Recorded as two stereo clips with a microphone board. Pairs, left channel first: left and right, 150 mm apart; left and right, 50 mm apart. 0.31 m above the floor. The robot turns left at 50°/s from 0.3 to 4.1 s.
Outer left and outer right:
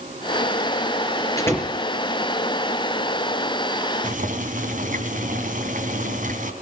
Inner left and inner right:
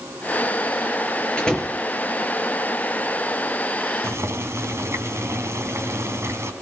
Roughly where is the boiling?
Right.